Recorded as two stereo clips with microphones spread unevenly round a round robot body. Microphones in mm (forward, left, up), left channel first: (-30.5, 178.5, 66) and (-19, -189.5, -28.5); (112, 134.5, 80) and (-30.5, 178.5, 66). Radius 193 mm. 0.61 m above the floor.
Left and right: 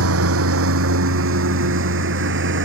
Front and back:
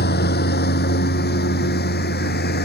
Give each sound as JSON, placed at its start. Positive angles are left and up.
{"t": 0.0, "sound": "a lawn mower", "azimuth_deg": -30}